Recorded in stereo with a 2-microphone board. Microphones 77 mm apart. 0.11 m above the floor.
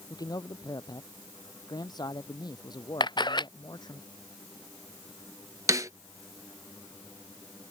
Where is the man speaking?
60° left (ahead or behind); by 4.0 s 70° left (ahead or behind).